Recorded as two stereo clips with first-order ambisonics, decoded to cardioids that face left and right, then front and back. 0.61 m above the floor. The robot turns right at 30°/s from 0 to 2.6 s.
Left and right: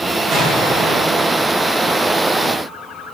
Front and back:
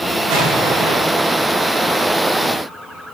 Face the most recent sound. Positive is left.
turn(degrees=-85)